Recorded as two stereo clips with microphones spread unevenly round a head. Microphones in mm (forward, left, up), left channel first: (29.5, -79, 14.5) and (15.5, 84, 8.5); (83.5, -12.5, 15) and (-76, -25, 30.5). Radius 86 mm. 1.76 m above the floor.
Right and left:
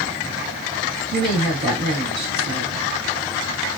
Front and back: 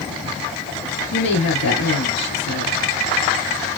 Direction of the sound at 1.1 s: 35° left.